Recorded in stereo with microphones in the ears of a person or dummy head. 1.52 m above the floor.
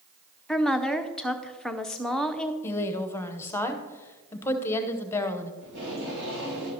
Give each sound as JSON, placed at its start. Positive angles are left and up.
{"t": 0.5, "sound": "a woman speaking", "side_deg": 5, "distance_m": 0.6}
{"t": 2.6, "sound": "a woman speaking", "side_deg": 15, "distance_m": 0.9}
{"t": 5.6, "sound": "tape being pulled", "side_deg": -70, "distance_m": 5.0}